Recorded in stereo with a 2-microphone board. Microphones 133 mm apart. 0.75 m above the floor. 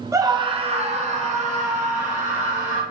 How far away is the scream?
About 0.5 m.